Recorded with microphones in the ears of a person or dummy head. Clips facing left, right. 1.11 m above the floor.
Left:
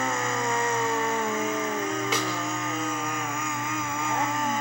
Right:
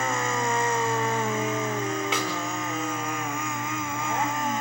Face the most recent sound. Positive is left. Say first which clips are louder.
# even
turn(degrees=40)  # may be behind; listen again after turning